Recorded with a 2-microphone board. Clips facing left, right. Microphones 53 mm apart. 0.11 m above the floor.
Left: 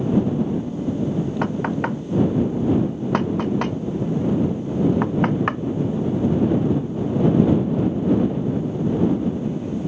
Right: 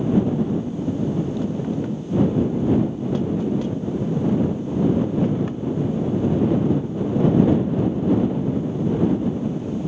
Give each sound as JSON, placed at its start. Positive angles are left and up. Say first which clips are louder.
{"t": 1.4, "sound": "knocking", "louder": "left 2 dB", "side_deg": 65}